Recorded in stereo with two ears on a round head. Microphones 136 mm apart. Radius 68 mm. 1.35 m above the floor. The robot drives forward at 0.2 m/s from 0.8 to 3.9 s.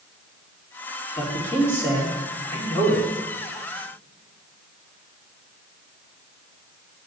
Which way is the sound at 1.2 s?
20° left (ahead or behind).